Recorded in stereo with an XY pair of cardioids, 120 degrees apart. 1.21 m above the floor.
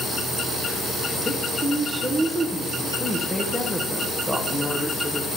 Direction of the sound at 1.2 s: 10° left.